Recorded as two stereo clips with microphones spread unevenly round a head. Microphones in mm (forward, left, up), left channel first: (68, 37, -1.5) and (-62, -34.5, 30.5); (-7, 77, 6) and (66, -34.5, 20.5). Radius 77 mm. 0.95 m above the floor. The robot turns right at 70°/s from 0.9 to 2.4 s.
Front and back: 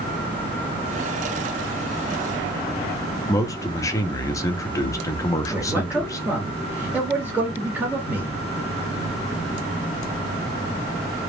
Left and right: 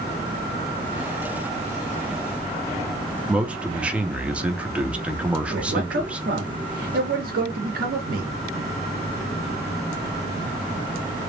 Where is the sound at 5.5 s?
65° right, 1.6 m.